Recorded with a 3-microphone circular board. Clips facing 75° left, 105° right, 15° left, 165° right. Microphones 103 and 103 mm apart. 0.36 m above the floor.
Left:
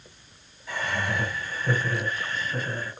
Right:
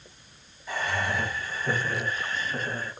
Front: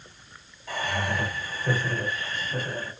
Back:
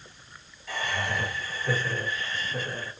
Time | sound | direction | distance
0.7 | laughter | 15° right | 1.9 m